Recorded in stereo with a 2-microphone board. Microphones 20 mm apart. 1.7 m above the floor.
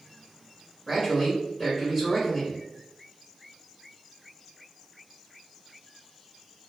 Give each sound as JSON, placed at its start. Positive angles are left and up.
{"t": 0.9, "sound": "a man speaking", "side_deg": -20, "distance_m": 1.0}